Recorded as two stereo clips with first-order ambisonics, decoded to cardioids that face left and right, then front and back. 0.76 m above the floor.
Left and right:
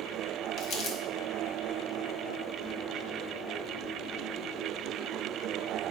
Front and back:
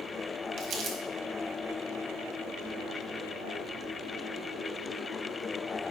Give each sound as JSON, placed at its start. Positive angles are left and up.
{"t": 0.6, "sound": "crumpling", "azimuth_deg": 135, "distance_m": 1.2}